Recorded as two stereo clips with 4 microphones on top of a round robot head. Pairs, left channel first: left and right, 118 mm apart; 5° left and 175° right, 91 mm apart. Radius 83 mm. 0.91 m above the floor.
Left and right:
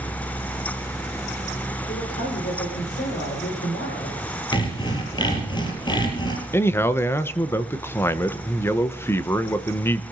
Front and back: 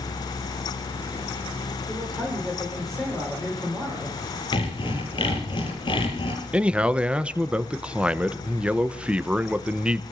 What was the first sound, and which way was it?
A man speaking, 90° left.